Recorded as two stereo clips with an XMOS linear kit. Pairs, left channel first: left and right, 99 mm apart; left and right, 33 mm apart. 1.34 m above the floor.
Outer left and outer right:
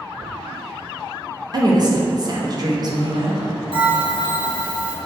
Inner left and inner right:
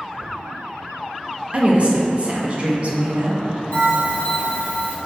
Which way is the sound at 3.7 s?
65° left (ahead or behind).